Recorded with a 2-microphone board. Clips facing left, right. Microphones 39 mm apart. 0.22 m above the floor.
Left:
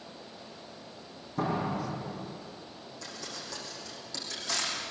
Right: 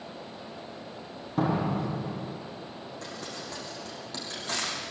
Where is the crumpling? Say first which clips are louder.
Right 1 dB; 40° right (ahead or behind), 8 m.